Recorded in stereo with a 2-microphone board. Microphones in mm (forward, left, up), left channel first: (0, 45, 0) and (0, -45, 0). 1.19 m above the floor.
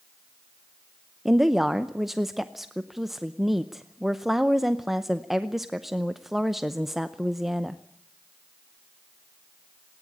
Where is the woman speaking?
Centre (ahead or behind), 0.6 m.